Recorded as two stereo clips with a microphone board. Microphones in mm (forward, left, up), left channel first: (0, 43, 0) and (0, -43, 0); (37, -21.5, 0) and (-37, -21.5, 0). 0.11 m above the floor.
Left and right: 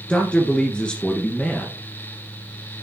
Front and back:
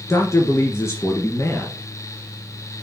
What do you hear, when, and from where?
0.1 s a man speaking: 20° left, 1.7 m